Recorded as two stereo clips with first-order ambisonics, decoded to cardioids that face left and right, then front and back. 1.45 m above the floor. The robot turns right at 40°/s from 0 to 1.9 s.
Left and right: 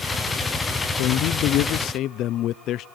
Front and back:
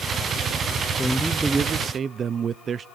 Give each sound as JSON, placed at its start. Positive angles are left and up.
{"t": 1.0, "sound": "a man speaking", "azimuth_deg": 85, "distance_m": 0.5}